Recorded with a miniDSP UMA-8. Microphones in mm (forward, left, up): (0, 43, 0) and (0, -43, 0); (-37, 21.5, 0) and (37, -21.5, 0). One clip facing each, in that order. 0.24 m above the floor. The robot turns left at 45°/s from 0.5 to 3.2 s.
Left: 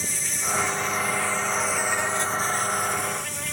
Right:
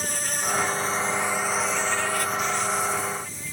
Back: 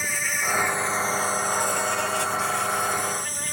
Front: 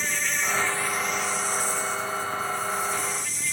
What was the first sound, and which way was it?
An insect, 130° right.